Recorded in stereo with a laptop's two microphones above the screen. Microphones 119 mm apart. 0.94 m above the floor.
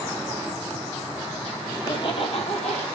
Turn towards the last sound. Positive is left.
turn(degrees=70)  # may be behind; listen again after turning